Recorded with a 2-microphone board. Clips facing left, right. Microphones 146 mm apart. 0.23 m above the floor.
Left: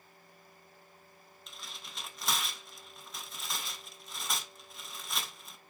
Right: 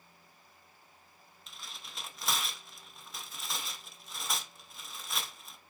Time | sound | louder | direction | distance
1.5 | tearing paper | left 1 dB | centre (ahead or behind) | 0.6 m